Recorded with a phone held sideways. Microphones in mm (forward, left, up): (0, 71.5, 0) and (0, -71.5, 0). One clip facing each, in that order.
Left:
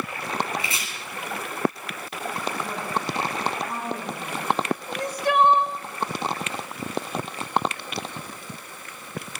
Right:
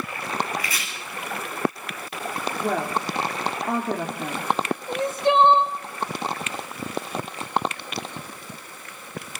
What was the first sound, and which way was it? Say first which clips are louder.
Chopping: even; 25° left (ahead or behind).